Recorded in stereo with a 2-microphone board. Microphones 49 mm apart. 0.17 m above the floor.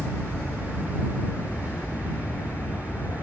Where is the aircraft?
55° left (ahead or behind).